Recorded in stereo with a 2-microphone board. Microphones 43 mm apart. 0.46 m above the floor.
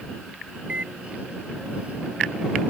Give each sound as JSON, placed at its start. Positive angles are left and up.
{"t": 0.7, "sound": "a microwave", "side_deg": -35}